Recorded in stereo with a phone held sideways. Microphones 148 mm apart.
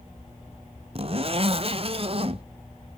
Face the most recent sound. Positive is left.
turn(degrees=-45)  # may be behind; listen again after turning